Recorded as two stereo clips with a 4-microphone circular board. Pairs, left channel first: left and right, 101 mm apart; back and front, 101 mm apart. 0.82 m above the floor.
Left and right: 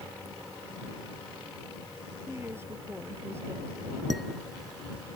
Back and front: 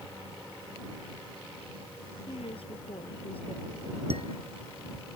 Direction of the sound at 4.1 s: Straight ahead.